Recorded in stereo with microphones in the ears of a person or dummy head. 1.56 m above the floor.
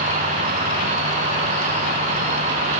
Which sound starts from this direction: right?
An insect, at 0.0 s.